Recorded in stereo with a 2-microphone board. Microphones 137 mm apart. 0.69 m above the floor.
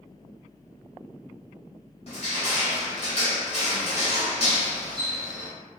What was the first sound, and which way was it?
Crushing, 45° left (ahead or behind).